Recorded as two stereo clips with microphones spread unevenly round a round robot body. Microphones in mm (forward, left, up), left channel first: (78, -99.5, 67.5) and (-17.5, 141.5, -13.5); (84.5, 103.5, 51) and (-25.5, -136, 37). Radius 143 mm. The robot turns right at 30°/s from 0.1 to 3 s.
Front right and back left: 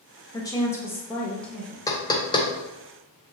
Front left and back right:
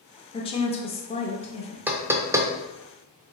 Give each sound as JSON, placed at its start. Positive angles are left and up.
{"t": 0.3, "sound": "a woman speaking", "azimuth_deg": 35, "distance_m": 0.8}
{"t": 1.9, "sound": "knocking", "azimuth_deg": -175, "distance_m": 0.5}